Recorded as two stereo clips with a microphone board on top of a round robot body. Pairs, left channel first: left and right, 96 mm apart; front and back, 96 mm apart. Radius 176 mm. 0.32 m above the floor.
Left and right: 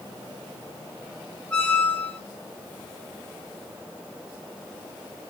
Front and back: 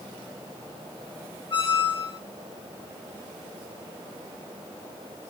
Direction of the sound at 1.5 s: 10° left.